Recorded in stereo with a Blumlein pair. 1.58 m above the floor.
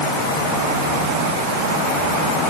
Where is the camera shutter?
I don't hear a camera shutter.